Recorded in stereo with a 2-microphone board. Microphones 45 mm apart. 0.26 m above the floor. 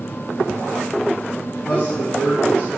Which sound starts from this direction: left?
A man speaking, at 1.7 s.